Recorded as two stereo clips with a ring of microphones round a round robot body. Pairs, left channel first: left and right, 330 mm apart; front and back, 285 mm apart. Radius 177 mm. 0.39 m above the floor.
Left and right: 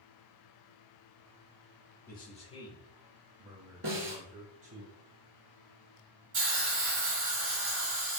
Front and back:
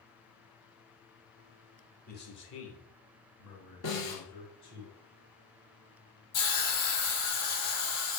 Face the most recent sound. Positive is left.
turn(degrees=-35)